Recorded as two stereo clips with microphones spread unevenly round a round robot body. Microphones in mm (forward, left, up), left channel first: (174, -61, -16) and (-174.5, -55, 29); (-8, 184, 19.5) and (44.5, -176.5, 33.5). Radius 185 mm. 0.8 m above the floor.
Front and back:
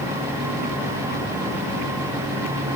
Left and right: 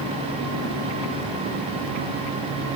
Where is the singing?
I don't hear singing.